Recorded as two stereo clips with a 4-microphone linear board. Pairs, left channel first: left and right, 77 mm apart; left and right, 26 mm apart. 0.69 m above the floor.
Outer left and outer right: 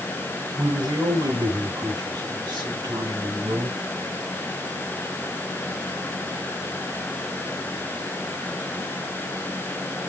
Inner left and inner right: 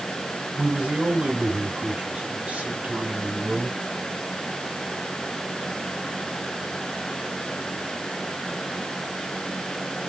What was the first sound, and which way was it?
A man speaking, 75° right (ahead or behind).